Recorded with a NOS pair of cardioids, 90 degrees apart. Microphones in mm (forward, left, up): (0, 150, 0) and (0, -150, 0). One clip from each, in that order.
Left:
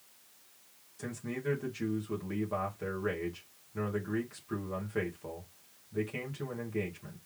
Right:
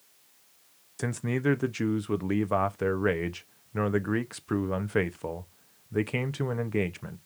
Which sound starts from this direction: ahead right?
A man speaking, at 1.0 s.